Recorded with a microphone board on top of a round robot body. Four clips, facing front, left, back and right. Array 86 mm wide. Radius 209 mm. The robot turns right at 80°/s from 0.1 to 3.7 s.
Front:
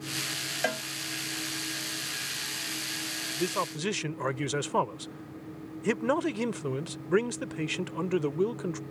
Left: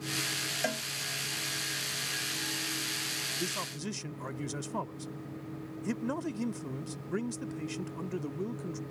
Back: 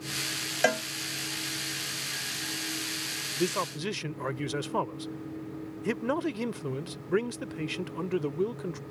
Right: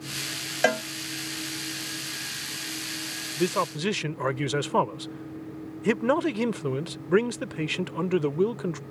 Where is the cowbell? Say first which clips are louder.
Right 12 dB, back 5 dB; 115° right; by 0.8 s 95° right.